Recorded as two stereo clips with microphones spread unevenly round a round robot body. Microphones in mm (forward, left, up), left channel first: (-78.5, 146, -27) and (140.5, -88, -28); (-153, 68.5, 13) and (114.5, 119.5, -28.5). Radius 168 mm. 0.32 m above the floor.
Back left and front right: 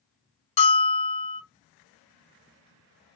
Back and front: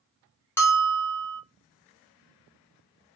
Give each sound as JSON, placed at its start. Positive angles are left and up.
{"t": 0.6, "sound": "a bell", "azimuth_deg": 100, "distance_m": 0.5}